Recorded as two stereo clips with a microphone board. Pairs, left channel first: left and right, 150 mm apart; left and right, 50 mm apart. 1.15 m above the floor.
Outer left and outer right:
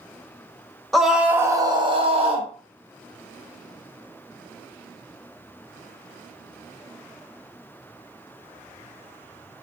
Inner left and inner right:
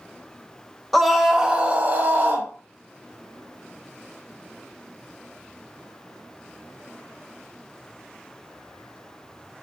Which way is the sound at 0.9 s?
Centre (ahead or behind).